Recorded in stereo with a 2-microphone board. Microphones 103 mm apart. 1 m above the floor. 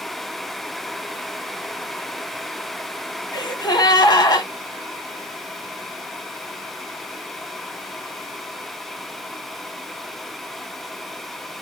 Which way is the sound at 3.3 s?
45° left (ahead or behind).